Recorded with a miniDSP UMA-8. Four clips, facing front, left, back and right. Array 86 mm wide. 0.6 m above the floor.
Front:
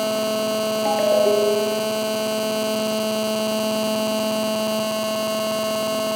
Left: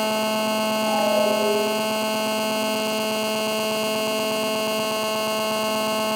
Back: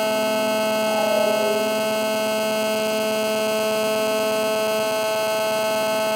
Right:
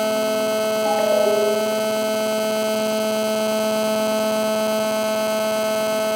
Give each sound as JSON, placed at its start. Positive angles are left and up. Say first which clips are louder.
{"t": 0.8, "sound": "a ringtone", "louder": "right 3 dB, front 5 dB", "azimuth_deg": -30, "distance_m": 5.5}